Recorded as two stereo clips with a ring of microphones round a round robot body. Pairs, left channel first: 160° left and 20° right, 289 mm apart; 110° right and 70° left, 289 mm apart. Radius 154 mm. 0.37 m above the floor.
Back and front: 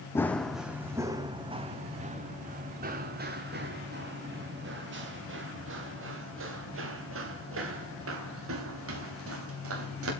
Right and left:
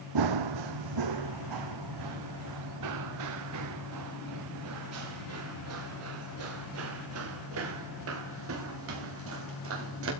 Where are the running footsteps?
75° left, 1.1 m; by 10.1 s 20° left, 6 m.